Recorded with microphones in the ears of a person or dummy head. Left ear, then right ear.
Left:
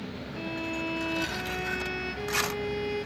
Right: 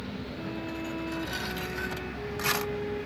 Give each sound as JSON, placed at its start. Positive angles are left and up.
{"t": 0.4, "sound": "a violin", "side_deg": 70}